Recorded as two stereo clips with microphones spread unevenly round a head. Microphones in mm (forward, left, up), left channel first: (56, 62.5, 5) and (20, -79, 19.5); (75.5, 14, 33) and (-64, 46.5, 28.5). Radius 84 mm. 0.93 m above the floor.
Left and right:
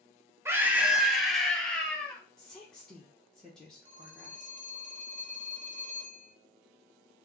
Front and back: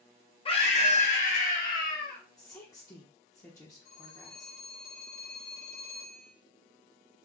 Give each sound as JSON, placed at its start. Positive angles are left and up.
{"t": 0.5, "sound": "a scream", "azimuth_deg": -30, "distance_m": 0.8}
{"t": 2.4, "sound": "a woman speaking", "azimuth_deg": 10, "distance_m": 0.9}
{"t": 3.9, "sound": "a phone ringing", "azimuth_deg": -60, "distance_m": 1.1}